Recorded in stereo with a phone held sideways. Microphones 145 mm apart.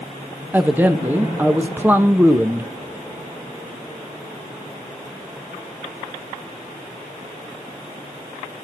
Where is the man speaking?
15° right (ahead or behind), 1.0 m.